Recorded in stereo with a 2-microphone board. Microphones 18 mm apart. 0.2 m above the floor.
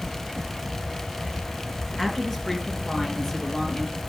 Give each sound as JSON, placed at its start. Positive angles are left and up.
{"t": 2.0, "sound": "a woman speaking", "side_deg": 5, "distance_m": 2.5}